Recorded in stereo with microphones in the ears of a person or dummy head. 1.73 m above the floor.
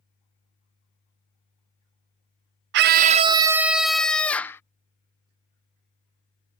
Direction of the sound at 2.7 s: 60° right (ahead or behind).